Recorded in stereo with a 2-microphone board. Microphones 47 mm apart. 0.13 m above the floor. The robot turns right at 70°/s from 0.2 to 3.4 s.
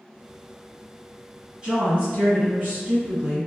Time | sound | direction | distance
1.6 | a woman speaking | 150° right | 2.0 m